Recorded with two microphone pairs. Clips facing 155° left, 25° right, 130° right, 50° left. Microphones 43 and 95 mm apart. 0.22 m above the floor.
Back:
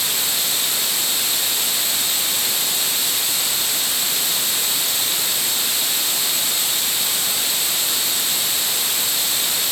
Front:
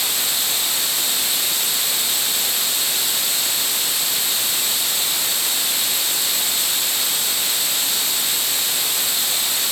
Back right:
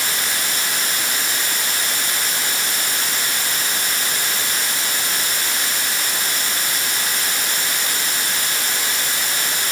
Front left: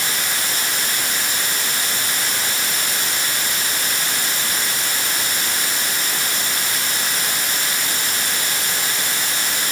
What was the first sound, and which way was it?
Only background noise.